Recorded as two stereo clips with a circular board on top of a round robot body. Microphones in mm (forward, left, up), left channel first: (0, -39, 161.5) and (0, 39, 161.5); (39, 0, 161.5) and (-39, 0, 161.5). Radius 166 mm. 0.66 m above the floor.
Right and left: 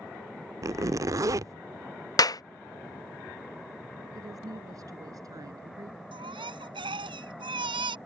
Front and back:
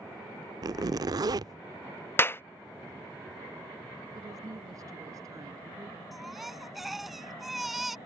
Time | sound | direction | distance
0.6 | a zipper | 140° left | ?
2.2 | a clap | 60° right | ?
4.1 | a woman speaking | 135° left | ?
6.1 | a baby crying | 90° left | ?